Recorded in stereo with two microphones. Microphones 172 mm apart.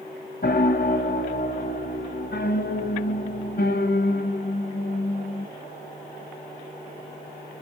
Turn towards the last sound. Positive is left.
turn(degrees=70)  # may be behind; listen again after turning